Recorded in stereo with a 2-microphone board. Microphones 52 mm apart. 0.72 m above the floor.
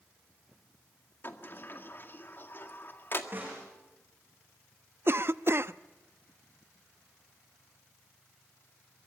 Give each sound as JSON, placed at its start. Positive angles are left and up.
{"t": 1.2, "sound": "a sliding door", "side_deg": 45, "distance_m": 1.8}
{"t": 3.3, "sound": "a snare drum", "side_deg": -35, "distance_m": 8.5}
{"t": 5.1, "sound": "a cough", "side_deg": -50, "distance_m": 0.6}